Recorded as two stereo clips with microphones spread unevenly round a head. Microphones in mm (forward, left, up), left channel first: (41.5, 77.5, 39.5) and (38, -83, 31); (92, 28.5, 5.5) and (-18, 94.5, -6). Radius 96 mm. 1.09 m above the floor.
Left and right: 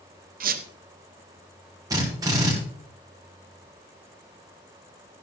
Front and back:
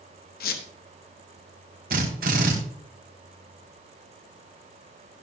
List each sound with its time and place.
0.4 s a squeak: 60° right, 1.0 m
1.9 s a drill: 165° right, 2.0 m